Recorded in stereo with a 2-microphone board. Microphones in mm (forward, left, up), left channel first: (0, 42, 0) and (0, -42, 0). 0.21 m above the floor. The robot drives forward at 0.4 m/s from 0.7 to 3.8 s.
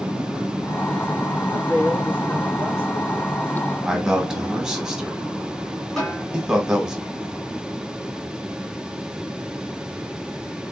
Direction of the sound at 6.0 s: 5° left (ahead or behind).